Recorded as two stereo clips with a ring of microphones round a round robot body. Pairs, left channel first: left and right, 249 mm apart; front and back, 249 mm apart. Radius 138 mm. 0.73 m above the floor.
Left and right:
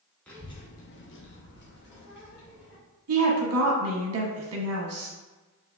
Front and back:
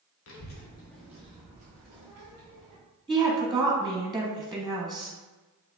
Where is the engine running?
No engine running in this recording.